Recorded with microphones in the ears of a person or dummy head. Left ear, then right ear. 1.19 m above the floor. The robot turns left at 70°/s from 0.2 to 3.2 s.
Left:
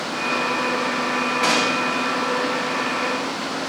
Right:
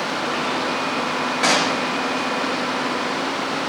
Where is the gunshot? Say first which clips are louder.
Right 2 dB; 160° right, 1.7 m; by 1.9 s 170° left, 1.7 m.